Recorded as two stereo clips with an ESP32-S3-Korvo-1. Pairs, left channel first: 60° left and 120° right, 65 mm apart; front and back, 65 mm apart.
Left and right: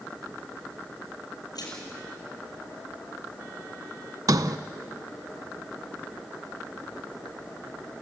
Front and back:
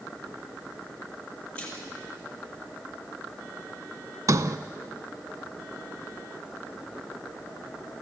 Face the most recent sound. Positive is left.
turn(degrees=-145)